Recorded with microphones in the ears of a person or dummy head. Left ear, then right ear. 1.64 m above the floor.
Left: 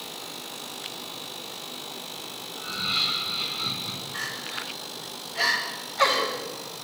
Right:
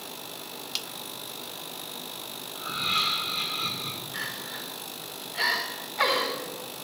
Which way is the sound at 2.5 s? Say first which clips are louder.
Even; 65° right (ahead or behind).